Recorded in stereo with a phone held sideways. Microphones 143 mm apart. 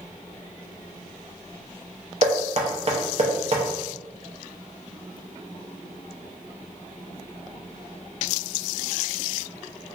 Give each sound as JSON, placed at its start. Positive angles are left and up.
{"t": 2.2, "sound": "knocking", "side_deg": -45, "distance_m": 0.7}